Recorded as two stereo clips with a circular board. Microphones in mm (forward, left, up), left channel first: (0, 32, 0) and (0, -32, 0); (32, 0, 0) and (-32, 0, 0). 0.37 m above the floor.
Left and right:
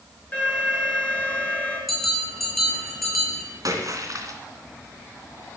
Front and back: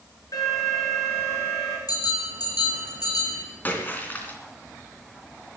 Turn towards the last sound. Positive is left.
turn(degrees=-60)